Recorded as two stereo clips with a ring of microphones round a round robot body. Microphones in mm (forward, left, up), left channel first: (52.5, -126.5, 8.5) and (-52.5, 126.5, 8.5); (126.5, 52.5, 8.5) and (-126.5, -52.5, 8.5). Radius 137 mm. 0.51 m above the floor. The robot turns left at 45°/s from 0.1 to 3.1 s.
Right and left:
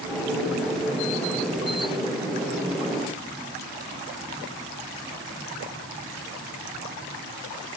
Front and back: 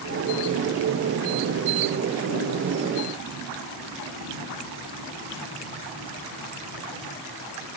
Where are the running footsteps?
No running footsteps in this recording.